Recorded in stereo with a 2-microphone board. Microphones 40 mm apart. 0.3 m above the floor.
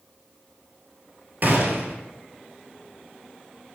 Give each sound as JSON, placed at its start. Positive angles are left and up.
{"t": 1.4, "sound": "a gunshot", "side_deg": -50, "distance_m": 1.0}